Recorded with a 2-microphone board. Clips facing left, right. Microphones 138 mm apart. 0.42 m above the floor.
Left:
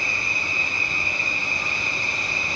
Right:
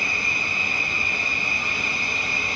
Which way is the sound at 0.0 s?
65° right (ahead or behind).